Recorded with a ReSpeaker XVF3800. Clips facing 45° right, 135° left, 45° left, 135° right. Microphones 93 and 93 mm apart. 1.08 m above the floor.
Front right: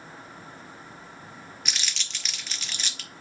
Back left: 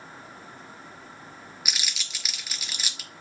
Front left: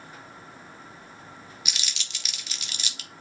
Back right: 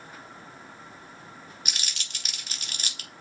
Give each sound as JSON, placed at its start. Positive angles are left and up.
{"t": 1.6, "sound": "crumpling", "azimuth_deg": -145, "distance_m": 0.6}